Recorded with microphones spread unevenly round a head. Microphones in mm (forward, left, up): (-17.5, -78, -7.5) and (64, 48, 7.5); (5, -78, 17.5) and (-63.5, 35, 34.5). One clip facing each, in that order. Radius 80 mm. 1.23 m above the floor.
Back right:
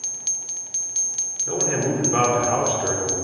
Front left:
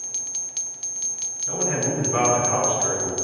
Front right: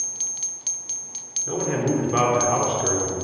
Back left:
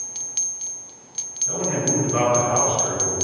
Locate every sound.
1.5 s a man speaking: 85° right, 4 m